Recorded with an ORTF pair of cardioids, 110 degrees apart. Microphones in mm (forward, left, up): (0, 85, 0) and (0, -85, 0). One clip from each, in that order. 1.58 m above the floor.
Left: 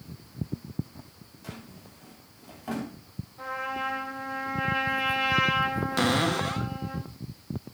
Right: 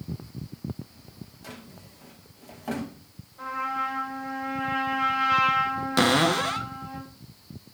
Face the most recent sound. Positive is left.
turn(degrees=-20)